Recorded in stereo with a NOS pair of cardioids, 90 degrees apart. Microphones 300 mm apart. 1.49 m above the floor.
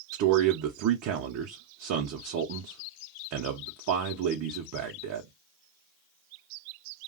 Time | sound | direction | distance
0.1 | a man speaking | 70° right | 0.7 m